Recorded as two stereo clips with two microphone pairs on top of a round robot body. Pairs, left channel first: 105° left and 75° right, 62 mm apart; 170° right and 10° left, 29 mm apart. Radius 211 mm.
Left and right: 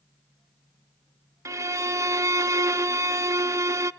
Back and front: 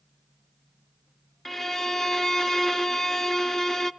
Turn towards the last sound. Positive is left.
turn(degrees=-100)